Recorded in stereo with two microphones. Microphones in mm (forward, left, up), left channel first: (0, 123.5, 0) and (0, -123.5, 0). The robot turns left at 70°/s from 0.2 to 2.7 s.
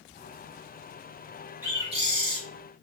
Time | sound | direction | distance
1.6 | a bird | 10° right | 1.0 m